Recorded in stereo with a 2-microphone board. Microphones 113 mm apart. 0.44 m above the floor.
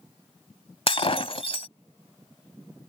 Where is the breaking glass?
60° left (ahead or behind).